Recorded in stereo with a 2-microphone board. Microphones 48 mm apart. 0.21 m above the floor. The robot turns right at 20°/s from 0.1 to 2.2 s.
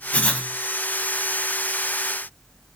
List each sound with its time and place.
0.1 s writing: 25° left (ahead or behind), 0.9 m